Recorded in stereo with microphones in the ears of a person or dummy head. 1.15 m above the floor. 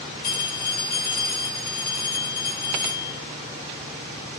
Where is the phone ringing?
55° left (ahead or behind), 6 m.